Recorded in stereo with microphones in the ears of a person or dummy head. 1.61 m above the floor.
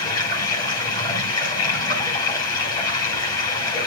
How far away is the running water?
About 8 m.